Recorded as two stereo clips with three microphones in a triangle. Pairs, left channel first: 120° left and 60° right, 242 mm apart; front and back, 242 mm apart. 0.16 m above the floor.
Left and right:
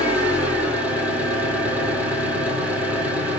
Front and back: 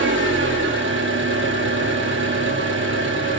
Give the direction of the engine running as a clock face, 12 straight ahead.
5 o'clock.